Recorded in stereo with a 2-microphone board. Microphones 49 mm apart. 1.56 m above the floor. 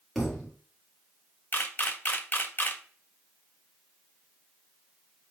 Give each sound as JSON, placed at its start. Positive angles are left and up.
{"t": 0.1, "sound": "a thud", "side_deg": 5, "distance_m": 1.8}
{"t": 1.5, "sound": "a camera shutter", "side_deg": 40, "distance_m": 0.5}